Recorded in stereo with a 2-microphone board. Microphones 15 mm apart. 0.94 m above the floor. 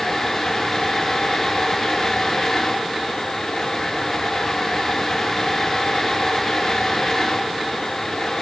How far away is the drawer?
No drawer in this recording.